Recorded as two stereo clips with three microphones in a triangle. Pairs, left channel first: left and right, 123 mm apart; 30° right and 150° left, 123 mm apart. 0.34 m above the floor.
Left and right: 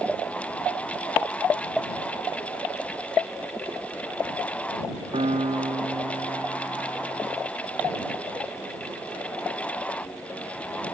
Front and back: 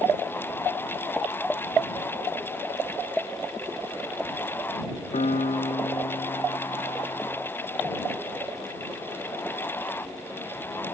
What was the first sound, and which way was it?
A piano, 50° right.